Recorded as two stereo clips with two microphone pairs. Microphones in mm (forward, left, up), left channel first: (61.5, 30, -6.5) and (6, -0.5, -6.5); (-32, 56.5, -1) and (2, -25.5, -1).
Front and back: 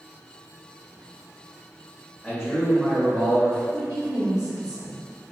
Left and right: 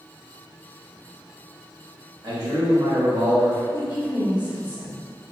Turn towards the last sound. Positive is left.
turn(degrees=-145)